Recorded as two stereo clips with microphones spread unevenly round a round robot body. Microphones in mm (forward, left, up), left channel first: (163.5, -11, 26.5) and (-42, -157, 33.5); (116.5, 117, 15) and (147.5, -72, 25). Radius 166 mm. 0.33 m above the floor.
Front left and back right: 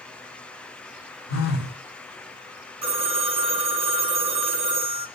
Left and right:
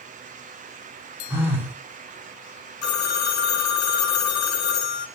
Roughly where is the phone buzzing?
Ahead.